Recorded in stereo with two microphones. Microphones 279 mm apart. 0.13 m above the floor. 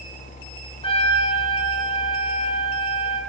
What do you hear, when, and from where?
0.8 s a trumpet: 20° left (ahead or behind), 1.0 m